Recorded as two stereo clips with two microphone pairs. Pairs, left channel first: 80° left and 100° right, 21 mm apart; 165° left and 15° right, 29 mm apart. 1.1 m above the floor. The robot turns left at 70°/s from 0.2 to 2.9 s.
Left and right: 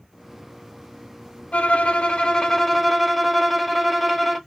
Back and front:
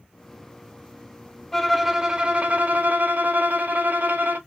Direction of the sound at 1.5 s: 85° left.